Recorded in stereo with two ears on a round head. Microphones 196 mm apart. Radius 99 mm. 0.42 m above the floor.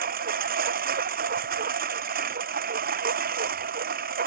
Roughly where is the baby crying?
I don't hear a baby crying.